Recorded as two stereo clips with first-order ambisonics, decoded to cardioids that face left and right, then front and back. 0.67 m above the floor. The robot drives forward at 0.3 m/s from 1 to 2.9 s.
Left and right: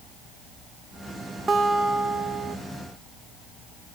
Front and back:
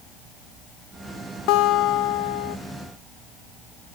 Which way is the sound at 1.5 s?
20° right.